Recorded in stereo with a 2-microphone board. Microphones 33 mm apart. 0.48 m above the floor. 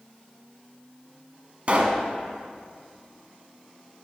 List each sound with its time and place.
1.7 s a pop: 40° right (ahead or behind), 1.2 m